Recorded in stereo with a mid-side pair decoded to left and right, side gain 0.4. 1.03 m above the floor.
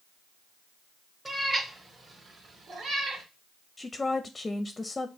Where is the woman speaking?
25° left, 0.6 m.